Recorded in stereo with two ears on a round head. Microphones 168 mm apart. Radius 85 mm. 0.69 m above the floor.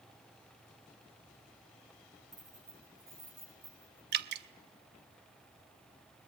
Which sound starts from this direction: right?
Dripping, at 4.1 s.